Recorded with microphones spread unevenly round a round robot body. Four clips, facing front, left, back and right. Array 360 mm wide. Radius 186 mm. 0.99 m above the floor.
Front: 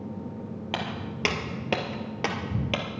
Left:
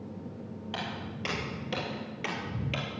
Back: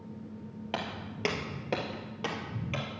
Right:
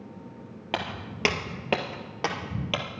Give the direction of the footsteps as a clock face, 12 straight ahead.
3 o'clock.